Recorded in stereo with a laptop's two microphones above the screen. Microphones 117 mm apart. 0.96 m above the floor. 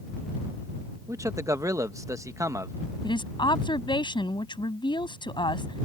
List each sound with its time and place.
1.1 s a man speaking: 30° right (ahead or behind)
3.0 s a woman speaking: 45° left (ahead or behind)